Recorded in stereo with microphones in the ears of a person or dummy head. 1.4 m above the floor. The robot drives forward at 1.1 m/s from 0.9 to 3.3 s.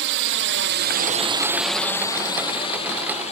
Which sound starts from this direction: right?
A drone, at 0.0 s.